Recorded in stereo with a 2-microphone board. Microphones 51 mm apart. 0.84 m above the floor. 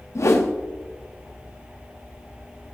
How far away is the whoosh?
About 1.1 m.